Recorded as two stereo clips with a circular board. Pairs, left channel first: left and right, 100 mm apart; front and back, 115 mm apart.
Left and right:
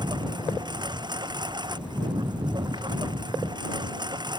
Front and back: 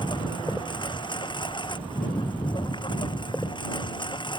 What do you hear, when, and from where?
0.0 s a lawn mower: 45° right